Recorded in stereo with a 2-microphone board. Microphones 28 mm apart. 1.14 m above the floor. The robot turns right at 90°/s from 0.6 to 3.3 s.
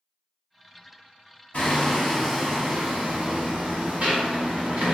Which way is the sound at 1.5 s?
115° left.